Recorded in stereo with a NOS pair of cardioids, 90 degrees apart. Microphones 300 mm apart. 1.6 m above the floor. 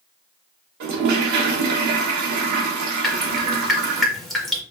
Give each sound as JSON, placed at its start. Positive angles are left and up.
{"t": 0.8, "sound": "a toilet flushing", "azimuth_deg": -70, "distance_m": 1.3}
{"t": 3.0, "sound": "dripping", "azimuth_deg": 0, "distance_m": 1.6}